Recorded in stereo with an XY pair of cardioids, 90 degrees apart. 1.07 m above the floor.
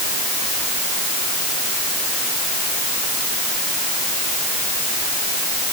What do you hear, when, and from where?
Only background noise.